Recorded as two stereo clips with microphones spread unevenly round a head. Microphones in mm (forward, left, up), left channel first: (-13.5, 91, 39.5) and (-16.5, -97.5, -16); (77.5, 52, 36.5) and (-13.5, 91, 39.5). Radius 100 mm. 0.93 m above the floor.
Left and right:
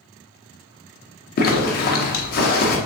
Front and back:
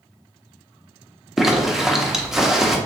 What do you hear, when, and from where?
1.4 s a zipper: 70° left, 0.8 m